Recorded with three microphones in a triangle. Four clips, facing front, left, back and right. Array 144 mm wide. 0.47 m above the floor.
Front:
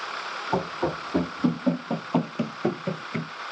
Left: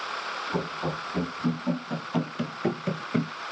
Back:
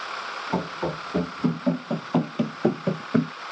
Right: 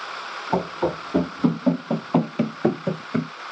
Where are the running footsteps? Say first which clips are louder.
Right 9 dB, front 2 dB; 75° right, 1.5 m; by 3.3 s 175° left, 0.5 m.